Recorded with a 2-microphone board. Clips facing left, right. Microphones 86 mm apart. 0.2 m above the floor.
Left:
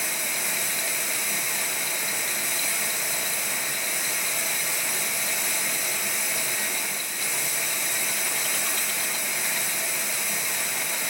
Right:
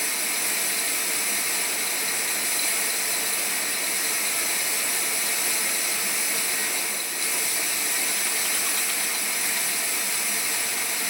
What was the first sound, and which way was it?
Running water, 5° right (ahead or behind).